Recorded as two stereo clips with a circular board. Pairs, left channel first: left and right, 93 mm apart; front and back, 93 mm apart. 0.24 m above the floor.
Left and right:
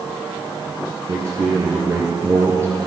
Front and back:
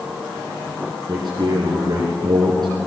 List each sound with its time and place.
1.1 s a man speaking: 150° right, 3.5 m